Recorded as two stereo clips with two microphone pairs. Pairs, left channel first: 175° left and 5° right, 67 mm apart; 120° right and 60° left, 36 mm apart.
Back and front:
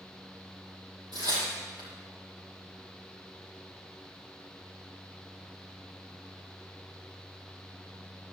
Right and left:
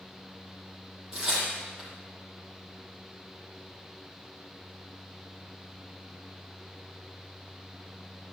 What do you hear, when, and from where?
1.1 s tearing paper: 10° right, 7 m